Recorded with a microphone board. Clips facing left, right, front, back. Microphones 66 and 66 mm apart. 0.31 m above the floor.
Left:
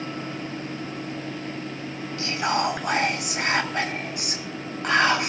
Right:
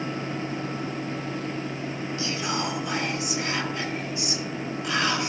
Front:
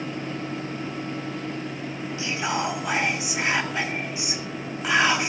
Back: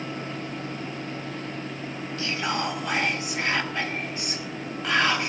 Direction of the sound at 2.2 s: 75° left.